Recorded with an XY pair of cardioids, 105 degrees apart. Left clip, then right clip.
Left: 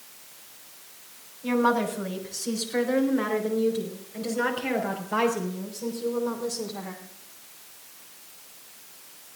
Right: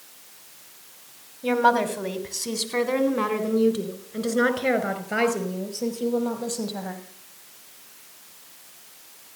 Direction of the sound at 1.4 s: 65° right.